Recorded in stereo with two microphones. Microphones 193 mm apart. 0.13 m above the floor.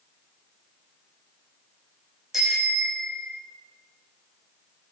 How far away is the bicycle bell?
About 6.5 m.